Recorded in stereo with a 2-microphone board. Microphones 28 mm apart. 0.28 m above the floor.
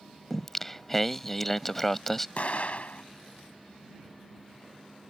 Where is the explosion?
55° left (ahead or behind).